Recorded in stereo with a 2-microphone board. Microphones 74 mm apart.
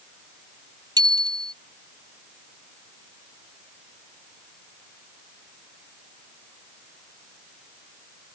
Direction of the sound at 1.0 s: 65° right (ahead or behind).